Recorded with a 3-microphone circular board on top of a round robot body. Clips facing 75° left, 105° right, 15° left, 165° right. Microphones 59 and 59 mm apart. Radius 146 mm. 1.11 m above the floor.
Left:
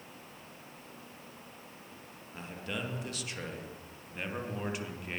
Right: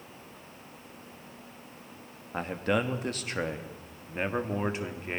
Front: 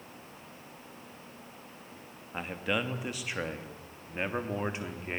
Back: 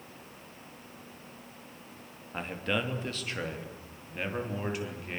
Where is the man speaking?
70° right, 3 m; by 5.2 s 45° right, 4 m.